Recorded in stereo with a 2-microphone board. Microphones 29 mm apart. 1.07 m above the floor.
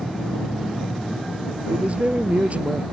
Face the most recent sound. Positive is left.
turn(degrees=-50)  # may be behind; listen again after turning